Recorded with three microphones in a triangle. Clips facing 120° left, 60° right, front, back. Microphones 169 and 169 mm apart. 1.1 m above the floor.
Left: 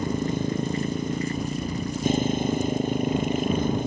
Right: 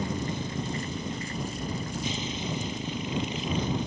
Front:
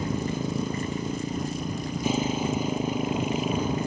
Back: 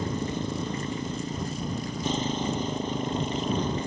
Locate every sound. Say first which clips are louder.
0.0 s a motorcycle: left 6 dB, front 1 dB; 80° left